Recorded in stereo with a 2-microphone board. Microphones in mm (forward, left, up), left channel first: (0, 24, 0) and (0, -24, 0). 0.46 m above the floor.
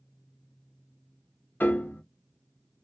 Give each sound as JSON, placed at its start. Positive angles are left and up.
{"t": 1.6, "sound": "a piano", "side_deg": 45, "distance_m": 0.5}